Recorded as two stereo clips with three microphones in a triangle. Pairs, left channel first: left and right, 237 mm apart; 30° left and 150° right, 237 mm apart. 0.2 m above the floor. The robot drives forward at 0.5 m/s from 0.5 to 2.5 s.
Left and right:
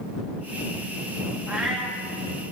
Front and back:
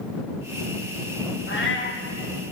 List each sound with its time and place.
1.5 s a cat meowing: 5° right, 3 m